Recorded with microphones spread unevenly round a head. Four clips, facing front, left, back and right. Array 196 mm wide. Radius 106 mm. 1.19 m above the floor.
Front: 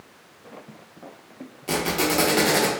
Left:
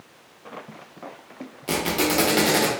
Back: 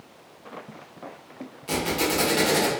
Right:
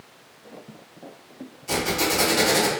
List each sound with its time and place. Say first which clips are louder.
1.7 s a squeak: left 1 dB, front 2 dB; 70° left, 0.7 m